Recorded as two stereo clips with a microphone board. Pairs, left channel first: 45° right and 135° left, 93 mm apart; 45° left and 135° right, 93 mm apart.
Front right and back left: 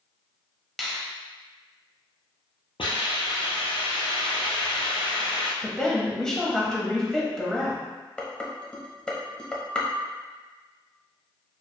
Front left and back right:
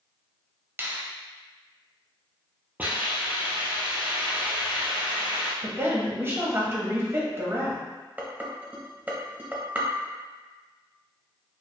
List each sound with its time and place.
0.8 s a finger snap: 130° right, 0.7 m
2.8 s a hiss: 65° right, 1.2 m
5.6 s a woman speaking: 120° right, 1.0 m
8.2 s dishes clattering: 105° right, 0.7 m